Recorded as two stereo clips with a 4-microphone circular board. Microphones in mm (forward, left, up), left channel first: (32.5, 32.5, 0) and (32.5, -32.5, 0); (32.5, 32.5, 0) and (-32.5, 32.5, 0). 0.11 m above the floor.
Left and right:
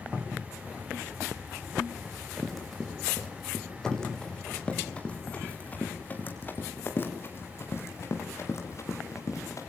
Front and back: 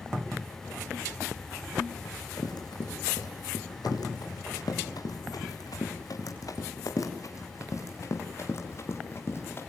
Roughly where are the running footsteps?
Ahead.